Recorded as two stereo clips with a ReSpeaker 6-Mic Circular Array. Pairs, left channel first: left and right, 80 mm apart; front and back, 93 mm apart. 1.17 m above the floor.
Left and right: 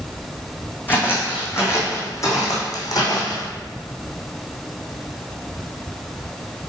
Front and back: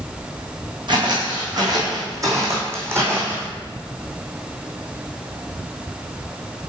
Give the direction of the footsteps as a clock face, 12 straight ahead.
7 o'clock.